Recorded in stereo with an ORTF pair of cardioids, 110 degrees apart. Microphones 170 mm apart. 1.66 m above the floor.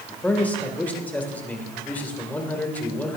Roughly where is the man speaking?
Ahead.